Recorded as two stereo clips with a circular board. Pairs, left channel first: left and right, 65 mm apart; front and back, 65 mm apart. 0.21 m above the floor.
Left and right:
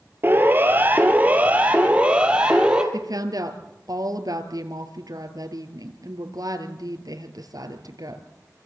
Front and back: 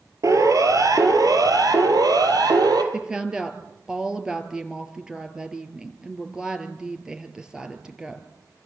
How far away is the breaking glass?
No breaking glass in this recording.